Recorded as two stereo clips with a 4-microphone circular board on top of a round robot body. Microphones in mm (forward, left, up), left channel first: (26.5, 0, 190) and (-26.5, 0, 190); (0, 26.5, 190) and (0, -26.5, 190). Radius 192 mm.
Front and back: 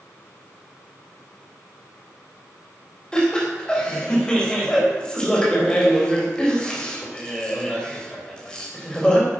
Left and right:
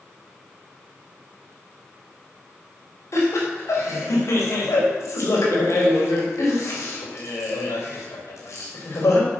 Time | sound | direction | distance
3.1 | laughter | 75° left | 4 m